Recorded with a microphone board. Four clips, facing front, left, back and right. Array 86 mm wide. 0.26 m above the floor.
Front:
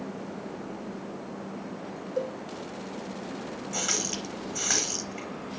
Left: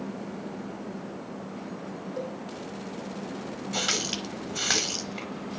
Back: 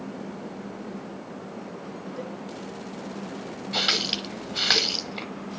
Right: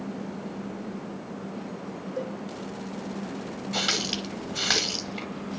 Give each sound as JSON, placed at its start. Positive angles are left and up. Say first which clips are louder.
{"t": 2.2, "sound": "a cowbell", "louder": "right 2 dB, front 7 dB", "azimuth_deg": 5, "distance_m": 4.5}
{"t": 3.7, "sound": "a running tap", "louder": "right 2 dB, back 5 dB", "azimuth_deg": -165, "distance_m": 0.7}